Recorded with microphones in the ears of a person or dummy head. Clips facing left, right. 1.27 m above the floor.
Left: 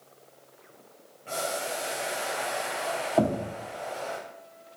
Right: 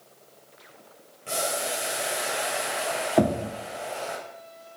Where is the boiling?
35° right (ahead or behind), 0.9 m.